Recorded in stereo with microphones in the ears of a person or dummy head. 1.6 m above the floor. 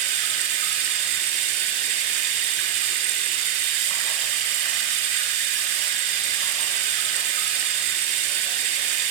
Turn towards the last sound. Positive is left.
turn(degrees=-50)  # may be behind; listen again after turning